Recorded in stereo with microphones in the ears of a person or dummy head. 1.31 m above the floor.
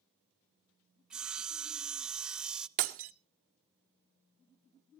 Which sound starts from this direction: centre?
Sawing, at 1.1 s.